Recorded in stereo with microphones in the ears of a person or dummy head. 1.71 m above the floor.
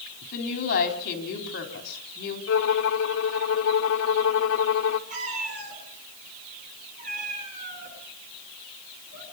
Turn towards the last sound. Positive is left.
turn(degrees=-40)  # may be behind; listen again after turning